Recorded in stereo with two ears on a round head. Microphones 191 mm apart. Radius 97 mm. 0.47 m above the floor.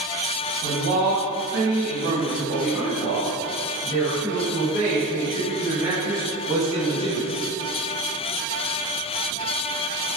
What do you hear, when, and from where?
0.6 s a man speaking: 60° right (ahead or behind), 3.5 m; by 7.4 s 25° right (ahead or behind), 6 m